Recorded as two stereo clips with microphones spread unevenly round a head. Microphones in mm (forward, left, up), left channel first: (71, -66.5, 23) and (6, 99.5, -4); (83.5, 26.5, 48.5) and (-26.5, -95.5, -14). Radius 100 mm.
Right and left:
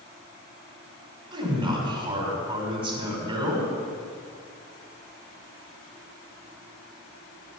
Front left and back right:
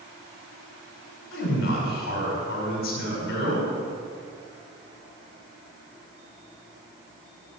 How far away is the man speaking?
About 5.5 m.